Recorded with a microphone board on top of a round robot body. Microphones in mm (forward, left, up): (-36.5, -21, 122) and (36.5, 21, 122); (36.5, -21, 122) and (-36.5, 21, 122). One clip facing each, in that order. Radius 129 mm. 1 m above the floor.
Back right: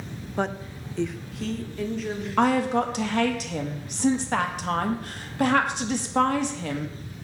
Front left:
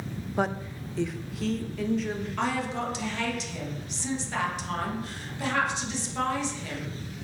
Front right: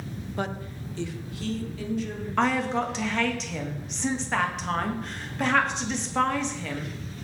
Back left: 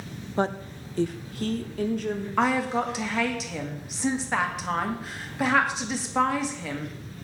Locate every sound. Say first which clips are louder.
0.4 s a woman speaking: even, back left 6 dB; 115° left, 0.7 m; by 2.3 s 120° left, 1.9 m
2.4 s a woman speaking: back right 9 dB, even; 125° right, 1.8 m